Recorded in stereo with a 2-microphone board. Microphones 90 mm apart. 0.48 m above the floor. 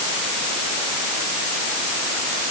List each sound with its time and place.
Only background noise.